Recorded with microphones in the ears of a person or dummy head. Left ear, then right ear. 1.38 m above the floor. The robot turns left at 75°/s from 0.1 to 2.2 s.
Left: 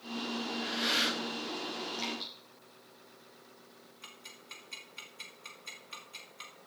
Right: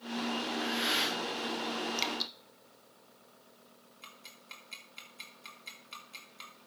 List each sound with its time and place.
0.5 s breathing: 135° right, 2 m; by 1.2 s 170° left, 2 m
2.0 s dripping: 45° right (ahead or behind), 1.4 m; by 2.3 s 60° right (ahead or behind), 1.4 m
4.0 s ticking: 15° right (ahead or behind), 2.5 m